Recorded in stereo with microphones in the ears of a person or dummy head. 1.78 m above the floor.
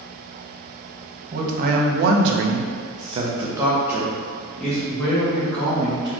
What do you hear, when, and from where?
1.3 s a man speaking: 45° right (ahead or behind), 0.9 m; by 6.1 s 5° left (ahead or behind), 1.9 m